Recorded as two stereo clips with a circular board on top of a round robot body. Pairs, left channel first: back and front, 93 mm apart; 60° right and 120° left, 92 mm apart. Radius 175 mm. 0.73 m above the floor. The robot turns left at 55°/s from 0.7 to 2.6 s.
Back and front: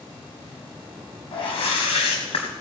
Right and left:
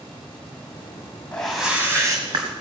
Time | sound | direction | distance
1.3 | a whoosh | 140° right | 1.2 m